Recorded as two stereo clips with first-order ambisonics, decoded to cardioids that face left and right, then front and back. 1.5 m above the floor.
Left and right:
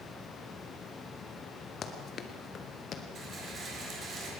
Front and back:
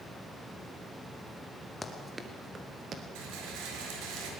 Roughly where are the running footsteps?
Left.